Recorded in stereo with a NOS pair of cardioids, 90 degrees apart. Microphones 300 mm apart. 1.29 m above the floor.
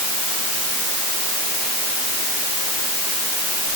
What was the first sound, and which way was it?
Only background noise.